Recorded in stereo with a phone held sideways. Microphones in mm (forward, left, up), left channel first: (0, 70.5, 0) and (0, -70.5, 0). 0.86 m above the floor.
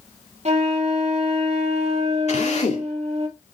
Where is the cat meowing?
No cat meowing in this recording.